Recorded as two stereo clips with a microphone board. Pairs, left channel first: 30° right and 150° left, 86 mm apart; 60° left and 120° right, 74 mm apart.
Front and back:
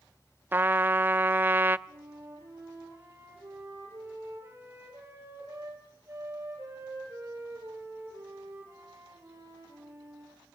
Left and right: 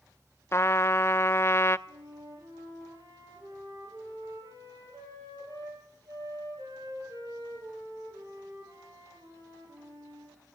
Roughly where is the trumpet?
Left.